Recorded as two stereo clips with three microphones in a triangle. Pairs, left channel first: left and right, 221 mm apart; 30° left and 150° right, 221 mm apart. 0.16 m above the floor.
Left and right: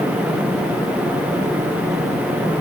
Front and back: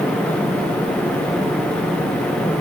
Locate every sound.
Only background noise.